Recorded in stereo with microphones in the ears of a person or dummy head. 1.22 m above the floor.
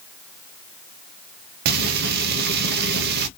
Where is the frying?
50° right (ahead or behind), 0.5 m.